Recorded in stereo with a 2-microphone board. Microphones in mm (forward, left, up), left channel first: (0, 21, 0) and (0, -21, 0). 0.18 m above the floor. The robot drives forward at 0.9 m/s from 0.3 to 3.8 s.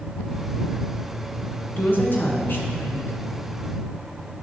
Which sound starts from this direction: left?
A woman speaking, at 1.8 s.